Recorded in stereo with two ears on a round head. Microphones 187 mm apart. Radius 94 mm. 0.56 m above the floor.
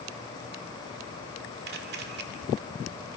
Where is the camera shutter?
50° right (ahead or behind), 2 m.